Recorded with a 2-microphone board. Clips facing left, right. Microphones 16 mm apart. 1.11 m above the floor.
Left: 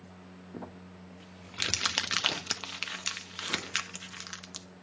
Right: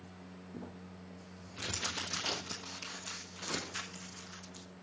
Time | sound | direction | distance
0.5 | crumpling | 70° left (ahead or behind) | 1.0 m